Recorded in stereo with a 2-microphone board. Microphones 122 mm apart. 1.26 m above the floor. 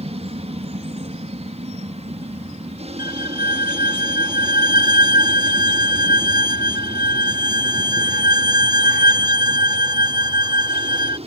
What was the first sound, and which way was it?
An aircraft, 60° right (ahead or behind).